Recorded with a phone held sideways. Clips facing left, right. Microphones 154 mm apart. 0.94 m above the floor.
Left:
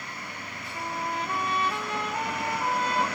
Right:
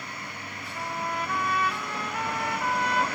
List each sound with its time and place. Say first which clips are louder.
0.7 s a trumpet: even; 25° left (ahead or behind), 1.3 m